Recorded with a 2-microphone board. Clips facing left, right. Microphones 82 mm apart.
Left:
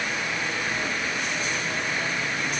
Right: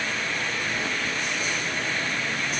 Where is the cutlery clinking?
No cutlery clinking in this recording.